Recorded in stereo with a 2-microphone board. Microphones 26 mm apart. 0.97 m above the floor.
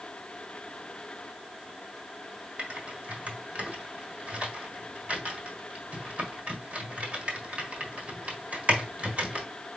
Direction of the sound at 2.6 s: 60° right (ahead or behind).